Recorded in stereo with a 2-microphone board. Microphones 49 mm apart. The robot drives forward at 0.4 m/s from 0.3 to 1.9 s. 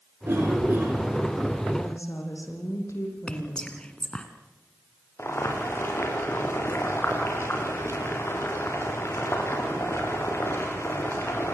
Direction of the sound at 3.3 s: 20° left (ahead or behind).